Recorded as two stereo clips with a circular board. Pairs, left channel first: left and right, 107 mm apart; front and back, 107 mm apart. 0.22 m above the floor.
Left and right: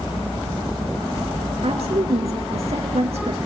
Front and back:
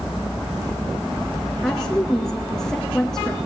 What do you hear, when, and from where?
1.6 s a woman speaking: 85° right, 4 m